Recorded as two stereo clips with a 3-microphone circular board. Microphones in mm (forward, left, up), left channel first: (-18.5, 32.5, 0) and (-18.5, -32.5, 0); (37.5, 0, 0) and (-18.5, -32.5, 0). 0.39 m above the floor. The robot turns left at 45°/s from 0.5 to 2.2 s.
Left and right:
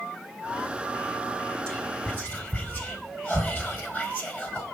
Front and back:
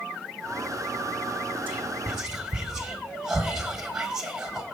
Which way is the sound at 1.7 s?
160° left.